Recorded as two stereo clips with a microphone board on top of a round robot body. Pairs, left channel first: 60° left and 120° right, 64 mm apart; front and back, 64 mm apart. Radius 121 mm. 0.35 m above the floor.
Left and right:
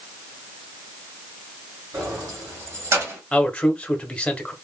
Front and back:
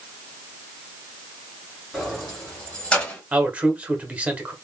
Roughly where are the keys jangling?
Right.